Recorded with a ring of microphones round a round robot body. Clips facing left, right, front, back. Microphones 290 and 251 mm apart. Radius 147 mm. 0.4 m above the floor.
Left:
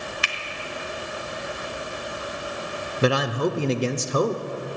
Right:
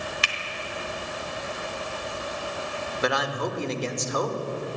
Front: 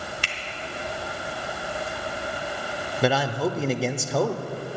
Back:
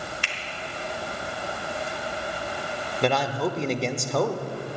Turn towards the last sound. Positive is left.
turn(degrees=85)